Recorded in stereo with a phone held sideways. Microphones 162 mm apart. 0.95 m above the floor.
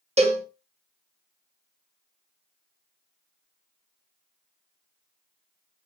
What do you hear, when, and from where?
0.2 s a cowbell: 40° right (ahead or behind), 0.8 m